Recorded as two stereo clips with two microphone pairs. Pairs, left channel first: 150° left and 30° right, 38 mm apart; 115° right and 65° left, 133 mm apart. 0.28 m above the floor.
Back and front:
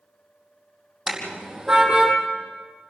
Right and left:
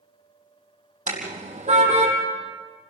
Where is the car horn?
50° left, 5 m; by 2.1 s 35° left, 4.5 m.